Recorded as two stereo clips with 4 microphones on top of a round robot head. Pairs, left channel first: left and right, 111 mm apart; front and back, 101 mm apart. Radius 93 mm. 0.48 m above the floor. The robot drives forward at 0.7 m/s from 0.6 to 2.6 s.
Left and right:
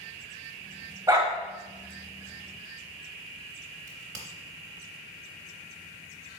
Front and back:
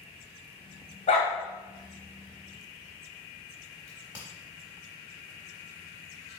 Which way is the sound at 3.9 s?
105° right.